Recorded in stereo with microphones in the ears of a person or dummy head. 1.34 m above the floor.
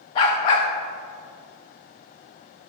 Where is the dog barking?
20° left (ahead or behind), 0.7 m.